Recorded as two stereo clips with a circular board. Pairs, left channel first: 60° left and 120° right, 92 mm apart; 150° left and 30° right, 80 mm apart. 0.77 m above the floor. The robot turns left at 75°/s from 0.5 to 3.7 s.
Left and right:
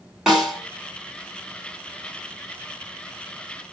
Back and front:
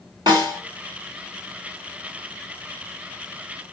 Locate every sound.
0.3 s a snare drum: 35° right, 1.9 m; by 0.6 s 40° right, 1.9 m